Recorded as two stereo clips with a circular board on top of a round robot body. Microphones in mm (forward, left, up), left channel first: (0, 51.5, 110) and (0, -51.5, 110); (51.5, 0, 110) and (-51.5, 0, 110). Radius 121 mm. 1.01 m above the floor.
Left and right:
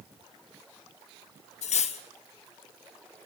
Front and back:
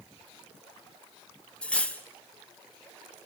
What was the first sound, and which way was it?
Cutlery clinking, 80° left.